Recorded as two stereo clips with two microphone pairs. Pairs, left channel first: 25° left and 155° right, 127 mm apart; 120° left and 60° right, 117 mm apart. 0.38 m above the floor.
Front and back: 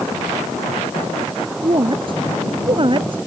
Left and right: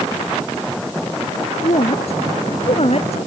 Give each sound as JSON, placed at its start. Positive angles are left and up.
{"t": 1.6, "sound": "a woman speaking", "azimuth_deg": 155}